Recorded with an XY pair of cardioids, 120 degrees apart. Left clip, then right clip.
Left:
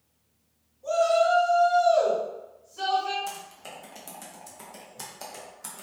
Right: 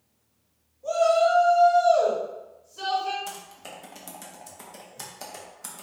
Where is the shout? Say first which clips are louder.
Right 1 dB; 5° left, 1.5 m.